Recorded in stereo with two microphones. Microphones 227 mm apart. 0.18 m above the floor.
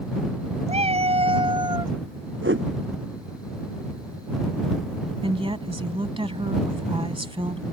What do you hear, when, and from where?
0.7 s a cat meowing: 30° right (ahead or behind); by 1.9 s 15° right (ahead or behind)
2.4 s a whoosh: 60° right (ahead or behind)
5.2 s a woman speaking: 25° right (ahead or behind)